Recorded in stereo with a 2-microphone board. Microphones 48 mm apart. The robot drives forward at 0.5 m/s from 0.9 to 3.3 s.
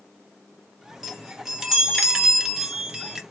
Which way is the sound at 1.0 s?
10° right (ahead or behind).